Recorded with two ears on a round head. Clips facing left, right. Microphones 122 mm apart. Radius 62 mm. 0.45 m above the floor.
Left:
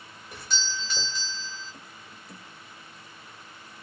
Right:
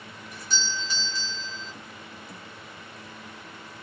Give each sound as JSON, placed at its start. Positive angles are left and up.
{"t": 0.3, "sound": "a doorbell", "side_deg": 55, "distance_m": 2.0}